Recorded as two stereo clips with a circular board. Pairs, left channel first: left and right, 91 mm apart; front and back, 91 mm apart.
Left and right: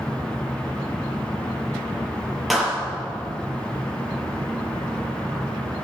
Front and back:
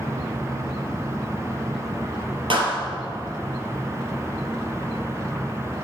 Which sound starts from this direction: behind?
A clap, at 2.5 s.